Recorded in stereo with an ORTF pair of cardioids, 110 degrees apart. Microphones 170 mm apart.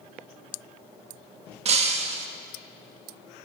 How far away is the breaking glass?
About 1.1 m.